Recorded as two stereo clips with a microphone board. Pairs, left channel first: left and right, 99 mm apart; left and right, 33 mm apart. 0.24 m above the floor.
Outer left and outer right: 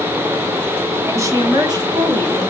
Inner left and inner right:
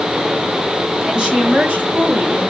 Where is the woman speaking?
25° right (ahead or behind), 1.1 m; by 2.5 s 55° right (ahead or behind), 1.7 m.